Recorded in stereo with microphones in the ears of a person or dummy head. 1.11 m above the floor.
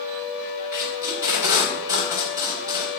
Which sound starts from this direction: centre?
Tape being pulled, at 0.7 s.